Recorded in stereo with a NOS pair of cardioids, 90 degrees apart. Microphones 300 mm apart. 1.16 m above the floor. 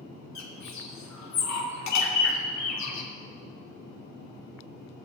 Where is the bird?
65° left, 2.5 m.